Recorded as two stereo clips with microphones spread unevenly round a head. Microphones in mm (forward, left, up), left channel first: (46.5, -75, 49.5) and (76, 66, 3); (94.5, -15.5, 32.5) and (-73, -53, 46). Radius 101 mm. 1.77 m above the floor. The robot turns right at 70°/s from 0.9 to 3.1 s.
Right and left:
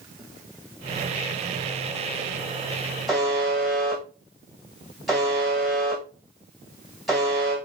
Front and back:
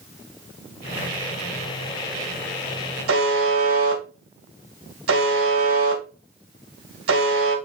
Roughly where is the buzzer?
Behind.